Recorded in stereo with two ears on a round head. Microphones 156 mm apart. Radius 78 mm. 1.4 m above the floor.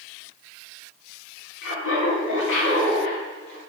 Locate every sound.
1.6 s laughter: 80° left, 3 m; by 3.6 s 60° left (ahead or behind), 3 m